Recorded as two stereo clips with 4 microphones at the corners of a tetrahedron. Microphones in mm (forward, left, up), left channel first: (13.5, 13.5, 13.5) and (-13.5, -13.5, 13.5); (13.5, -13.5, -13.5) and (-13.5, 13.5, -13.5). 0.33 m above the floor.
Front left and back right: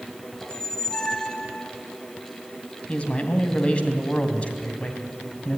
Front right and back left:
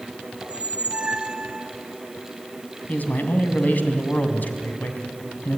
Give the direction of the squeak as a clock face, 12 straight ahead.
9 o'clock.